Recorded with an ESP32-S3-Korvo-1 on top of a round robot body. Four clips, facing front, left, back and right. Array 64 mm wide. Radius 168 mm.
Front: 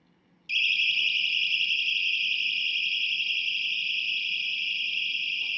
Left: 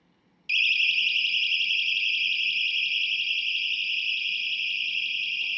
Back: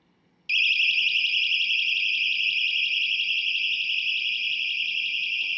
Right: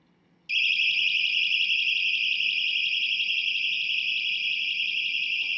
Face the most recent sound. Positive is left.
turn(degrees=160)